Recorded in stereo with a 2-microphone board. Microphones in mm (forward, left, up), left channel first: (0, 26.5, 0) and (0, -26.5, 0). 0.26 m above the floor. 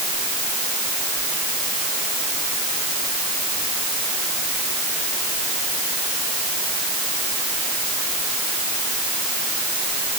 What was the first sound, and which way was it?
Only background noise.